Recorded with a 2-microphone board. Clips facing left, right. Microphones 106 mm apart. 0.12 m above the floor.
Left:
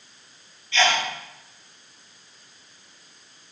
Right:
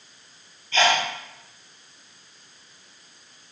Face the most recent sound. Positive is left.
turn(degrees=-40)  # may be behind; listen again after turning